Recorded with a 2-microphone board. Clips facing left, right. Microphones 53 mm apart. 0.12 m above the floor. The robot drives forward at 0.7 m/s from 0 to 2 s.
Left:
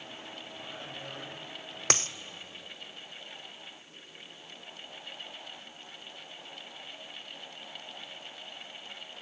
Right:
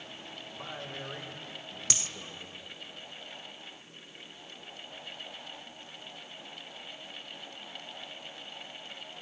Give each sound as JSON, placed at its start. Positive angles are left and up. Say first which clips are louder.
{"t": 0.5, "sound": "a man speaking", "louder": "right 4 dB", "side_deg": -55, "distance_m": 6.5}
{"t": 1.9, "sound": "a dropped coin", "louder": "left 9 dB", "side_deg": 50, "distance_m": 0.7}